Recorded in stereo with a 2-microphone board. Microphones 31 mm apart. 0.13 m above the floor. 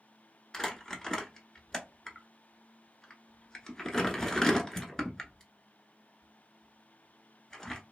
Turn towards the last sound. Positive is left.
turn(degrees=20)  # may be behind; listen again after turning